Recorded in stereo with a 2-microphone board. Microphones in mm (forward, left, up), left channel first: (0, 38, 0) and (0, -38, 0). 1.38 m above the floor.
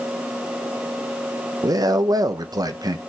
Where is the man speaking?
55° right (ahead or behind), 0.8 m.